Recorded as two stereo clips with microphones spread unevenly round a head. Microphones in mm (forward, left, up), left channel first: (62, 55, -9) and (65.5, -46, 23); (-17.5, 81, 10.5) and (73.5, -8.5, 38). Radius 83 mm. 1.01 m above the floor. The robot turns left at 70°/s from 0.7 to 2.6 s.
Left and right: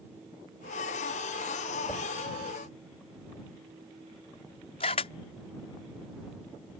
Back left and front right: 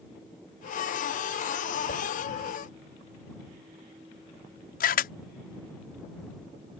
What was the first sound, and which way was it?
A whoosh, 160° left.